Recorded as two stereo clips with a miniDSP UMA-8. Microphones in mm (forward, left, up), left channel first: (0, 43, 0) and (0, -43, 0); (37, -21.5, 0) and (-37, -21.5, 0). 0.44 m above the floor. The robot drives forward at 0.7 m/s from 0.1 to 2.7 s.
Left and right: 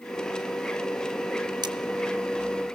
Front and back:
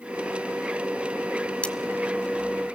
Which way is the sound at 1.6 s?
70° right.